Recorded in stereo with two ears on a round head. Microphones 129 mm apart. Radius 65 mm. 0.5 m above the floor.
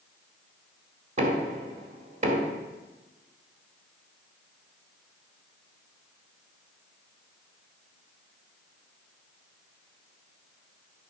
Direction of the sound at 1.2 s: 60° right (ahead or behind).